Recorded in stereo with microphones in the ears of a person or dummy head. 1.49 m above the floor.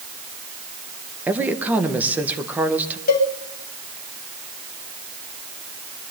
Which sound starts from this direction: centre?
A woman speaking, at 1.3 s.